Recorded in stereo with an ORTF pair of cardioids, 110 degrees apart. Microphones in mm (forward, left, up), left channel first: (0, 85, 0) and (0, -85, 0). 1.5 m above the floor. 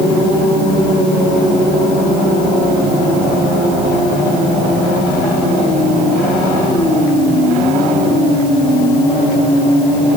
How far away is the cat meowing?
No cat meowing in this recording.